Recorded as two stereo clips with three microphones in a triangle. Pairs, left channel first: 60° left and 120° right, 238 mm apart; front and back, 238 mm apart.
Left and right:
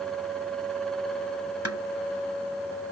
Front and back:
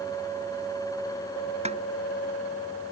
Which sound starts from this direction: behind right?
A snare drum, at 1.6 s.